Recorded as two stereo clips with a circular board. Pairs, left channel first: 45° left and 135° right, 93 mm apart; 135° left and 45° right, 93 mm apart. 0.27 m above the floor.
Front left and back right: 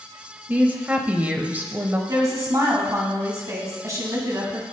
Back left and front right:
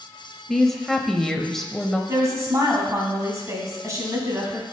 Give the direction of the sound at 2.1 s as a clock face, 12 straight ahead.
3 o'clock.